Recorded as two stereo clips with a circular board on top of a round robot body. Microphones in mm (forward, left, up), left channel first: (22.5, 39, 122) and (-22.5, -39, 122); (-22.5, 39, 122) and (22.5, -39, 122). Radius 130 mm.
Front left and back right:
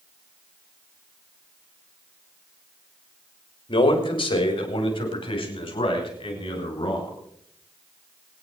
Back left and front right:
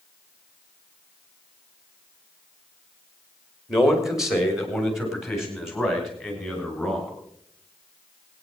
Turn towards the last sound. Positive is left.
turn(degrees=30)